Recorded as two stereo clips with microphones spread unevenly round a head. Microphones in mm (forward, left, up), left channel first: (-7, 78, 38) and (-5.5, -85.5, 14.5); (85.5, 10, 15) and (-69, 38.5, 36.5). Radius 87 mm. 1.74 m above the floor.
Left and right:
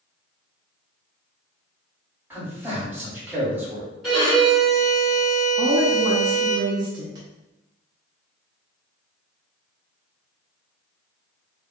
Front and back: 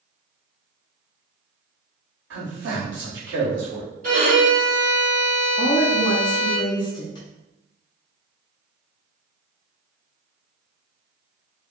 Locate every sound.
2.3 s a man speaking: 170° right, 1.6 m
4.0 s a violin: 175° left, 1.9 m
5.6 s a woman speaking: 45° right, 0.6 m